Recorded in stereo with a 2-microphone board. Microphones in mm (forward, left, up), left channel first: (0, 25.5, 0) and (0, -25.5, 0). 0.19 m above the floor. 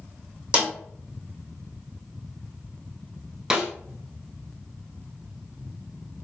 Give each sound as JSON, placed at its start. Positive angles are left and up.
{"t": 0.5, "sound": "a snare drum", "side_deg": -25, "distance_m": 1.7}
{"t": 3.5, "sound": "a snare drum", "side_deg": -15, "distance_m": 0.8}